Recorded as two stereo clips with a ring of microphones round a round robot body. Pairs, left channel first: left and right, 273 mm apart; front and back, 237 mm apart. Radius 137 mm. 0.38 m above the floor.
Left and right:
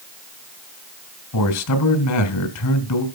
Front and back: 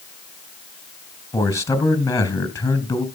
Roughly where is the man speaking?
Left.